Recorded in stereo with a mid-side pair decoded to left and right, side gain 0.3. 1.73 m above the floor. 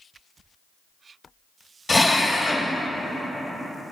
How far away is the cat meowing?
I don't hear a cat meowing.